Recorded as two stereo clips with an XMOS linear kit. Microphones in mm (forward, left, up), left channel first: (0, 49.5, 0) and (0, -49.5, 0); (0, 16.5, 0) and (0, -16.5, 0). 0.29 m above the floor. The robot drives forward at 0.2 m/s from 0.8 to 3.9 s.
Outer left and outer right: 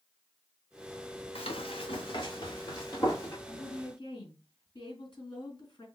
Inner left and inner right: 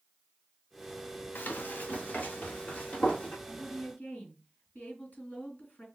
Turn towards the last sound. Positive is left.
turn(degrees=50)  # may be behind; listen again after turning